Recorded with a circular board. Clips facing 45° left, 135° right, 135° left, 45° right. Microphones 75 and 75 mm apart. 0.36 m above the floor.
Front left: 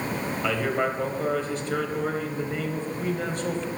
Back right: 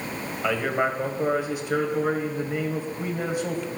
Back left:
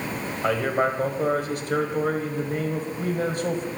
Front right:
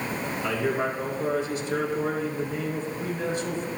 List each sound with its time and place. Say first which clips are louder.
0.4 s a man speaking: back right 2 dB, back left 4 dB; 150° left, 1.4 m